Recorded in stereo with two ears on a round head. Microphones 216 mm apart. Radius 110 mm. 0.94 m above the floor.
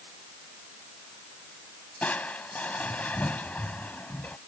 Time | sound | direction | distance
2.0 | crushing | 5° left (ahead or behind) | ?